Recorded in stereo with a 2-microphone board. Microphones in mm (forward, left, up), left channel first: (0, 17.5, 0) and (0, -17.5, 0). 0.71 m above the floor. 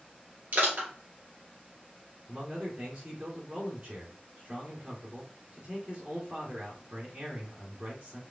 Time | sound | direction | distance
0.5 | crushing | 60° right (ahead or behind) | 2.5 m
2.3 | a man speaking | 35° right (ahead or behind) | 1.8 m